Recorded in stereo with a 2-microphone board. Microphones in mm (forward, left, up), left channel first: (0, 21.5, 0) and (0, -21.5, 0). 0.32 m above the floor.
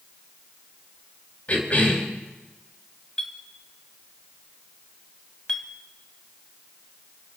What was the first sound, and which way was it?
A cough, 35° left (ahead or behind).